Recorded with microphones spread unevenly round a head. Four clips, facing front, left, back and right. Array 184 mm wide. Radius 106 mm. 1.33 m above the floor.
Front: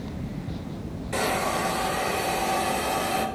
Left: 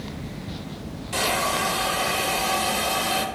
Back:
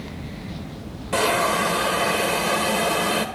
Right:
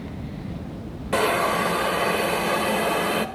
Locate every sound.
1.1 s a hiss: 130° right, 1.3 m